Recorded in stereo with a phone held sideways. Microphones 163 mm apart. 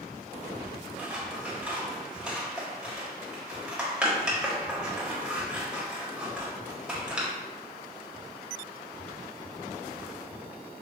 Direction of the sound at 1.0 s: 5° right (ahead or behind).